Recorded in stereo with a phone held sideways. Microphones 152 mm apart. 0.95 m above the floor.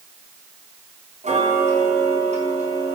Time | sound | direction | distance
1.2 | ticking | 55° right (ahead or behind) | 3 m